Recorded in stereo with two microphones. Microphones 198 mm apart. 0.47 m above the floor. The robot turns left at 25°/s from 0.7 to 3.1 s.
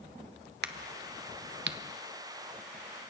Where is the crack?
60° right (ahead or behind), 0.6 m; by 3.1 s 45° right (ahead or behind), 0.6 m.